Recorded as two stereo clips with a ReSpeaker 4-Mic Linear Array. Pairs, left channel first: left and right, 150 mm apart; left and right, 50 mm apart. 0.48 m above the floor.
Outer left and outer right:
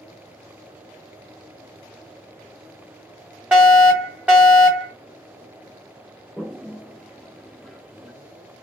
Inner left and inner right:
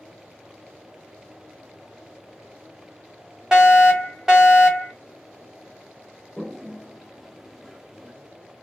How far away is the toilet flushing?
About 0.6 m.